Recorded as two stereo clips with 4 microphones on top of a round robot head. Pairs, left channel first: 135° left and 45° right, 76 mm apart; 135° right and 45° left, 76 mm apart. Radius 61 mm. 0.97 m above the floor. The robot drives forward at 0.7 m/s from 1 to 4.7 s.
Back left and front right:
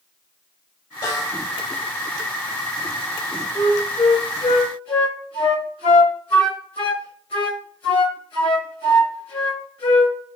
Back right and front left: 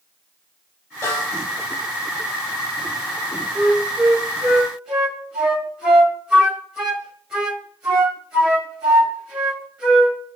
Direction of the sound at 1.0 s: 175° left.